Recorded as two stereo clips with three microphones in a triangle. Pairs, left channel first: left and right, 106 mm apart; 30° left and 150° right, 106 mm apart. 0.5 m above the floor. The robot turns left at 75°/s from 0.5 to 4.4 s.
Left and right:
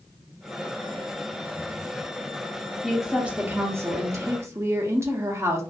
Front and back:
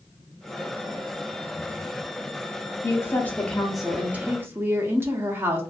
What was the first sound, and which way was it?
A woman speaking, 5° left.